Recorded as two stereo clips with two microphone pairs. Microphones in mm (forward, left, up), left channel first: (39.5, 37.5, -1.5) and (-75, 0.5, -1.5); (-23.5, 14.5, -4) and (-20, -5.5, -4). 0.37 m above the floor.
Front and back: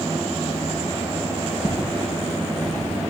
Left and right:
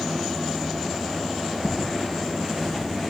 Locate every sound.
1.6 s footsteps: 15° left, 4 m; by 3.0 s 25° left, 3 m